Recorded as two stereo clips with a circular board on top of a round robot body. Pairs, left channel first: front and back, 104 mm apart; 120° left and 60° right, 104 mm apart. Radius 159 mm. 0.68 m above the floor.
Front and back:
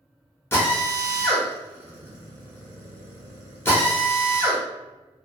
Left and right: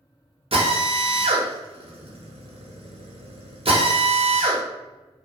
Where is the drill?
65° right, 0.9 m.